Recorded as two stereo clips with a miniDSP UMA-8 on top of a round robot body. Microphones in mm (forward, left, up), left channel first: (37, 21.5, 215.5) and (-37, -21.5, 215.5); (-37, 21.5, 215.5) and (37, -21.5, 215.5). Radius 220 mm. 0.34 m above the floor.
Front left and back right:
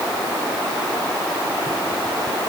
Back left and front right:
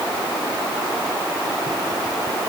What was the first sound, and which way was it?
Only background noise.